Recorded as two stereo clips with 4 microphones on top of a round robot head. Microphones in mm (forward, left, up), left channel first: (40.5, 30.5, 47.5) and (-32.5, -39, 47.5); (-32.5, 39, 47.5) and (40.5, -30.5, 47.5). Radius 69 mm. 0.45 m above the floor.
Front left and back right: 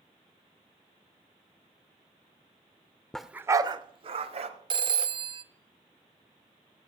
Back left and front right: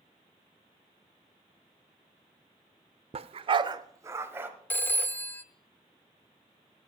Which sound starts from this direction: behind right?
A phone ringing, at 4.7 s.